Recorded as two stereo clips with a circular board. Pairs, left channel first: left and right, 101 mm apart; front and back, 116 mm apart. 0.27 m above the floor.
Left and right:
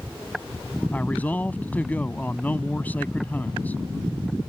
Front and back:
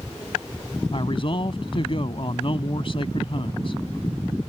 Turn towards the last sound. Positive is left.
turn(degrees=20)